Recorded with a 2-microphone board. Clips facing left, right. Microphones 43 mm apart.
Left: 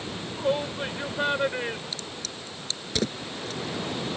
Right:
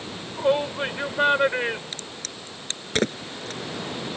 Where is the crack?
45° right (ahead or behind).